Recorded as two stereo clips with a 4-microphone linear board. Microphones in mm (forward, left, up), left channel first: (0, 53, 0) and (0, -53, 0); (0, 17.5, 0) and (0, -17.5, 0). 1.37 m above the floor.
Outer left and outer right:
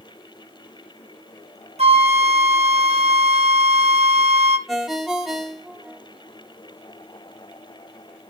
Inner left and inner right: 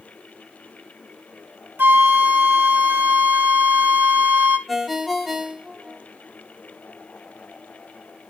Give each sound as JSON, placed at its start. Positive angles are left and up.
{"t": 1.8, "sound": "a flute", "side_deg": -75, "distance_m": 1.4}
{"t": 4.7, "sound": "a ringtone", "side_deg": 0, "distance_m": 1.6}